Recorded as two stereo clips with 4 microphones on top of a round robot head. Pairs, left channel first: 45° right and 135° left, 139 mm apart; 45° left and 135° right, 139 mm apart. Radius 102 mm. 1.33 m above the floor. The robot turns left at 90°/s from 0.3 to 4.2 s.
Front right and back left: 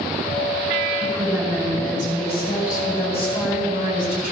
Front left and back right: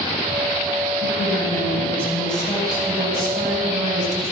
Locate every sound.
1.0 s a woman speaking: 80° left, 8 m; by 4.3 s 150° left, 8 m